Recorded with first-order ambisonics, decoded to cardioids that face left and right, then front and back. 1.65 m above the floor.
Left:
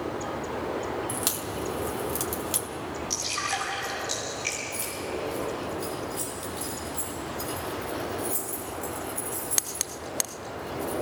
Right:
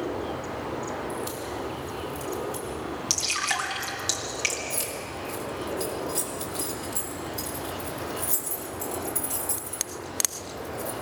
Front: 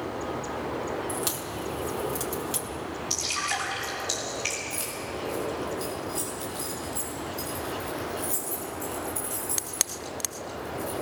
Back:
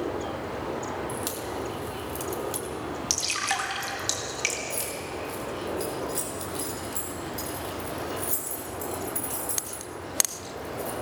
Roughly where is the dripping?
Behind right.